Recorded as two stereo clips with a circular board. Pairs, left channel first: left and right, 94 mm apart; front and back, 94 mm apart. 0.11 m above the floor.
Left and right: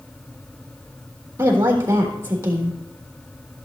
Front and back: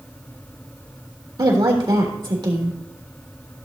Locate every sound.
1.4 s a woman speaking: 150° right, 3.5 m